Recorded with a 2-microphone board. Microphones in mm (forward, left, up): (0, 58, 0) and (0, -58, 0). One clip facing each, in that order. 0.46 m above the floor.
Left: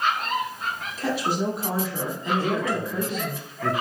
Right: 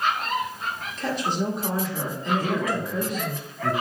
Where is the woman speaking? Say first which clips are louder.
Left 1 dB; 5° left (ahead or behind), 1.3 m.